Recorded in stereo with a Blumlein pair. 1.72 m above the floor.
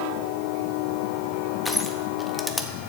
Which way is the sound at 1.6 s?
5° left.